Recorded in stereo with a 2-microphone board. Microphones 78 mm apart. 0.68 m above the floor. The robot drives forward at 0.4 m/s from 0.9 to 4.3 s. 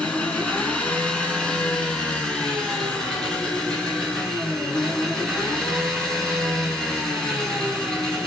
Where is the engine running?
15° left (ahead or behind), 2.5 m; by 8.3 s 10° left (ahead or behind), 4 m.